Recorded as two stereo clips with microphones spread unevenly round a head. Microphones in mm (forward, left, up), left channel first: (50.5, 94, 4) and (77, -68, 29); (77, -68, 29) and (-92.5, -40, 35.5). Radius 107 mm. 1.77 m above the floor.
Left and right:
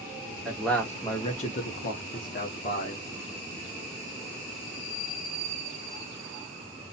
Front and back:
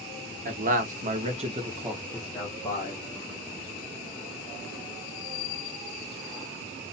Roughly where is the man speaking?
Behind.